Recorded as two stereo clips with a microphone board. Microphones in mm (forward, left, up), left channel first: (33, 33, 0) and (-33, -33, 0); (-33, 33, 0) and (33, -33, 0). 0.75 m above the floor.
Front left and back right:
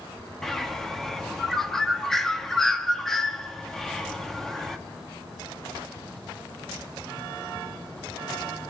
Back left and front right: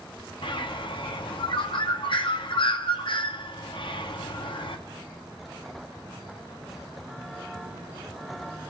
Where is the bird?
130° left, 0.7 m.